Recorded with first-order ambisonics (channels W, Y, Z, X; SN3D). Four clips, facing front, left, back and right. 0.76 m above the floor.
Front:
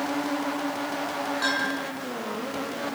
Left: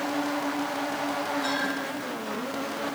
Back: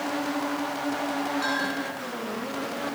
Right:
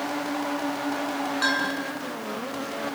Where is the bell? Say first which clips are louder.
Right 3 dB, front 1 dB; 75° right, 7.5 m.